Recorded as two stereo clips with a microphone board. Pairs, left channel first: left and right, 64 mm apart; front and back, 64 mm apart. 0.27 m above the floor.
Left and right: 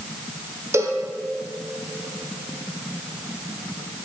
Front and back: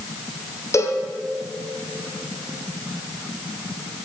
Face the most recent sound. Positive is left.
turn(degrees=-45)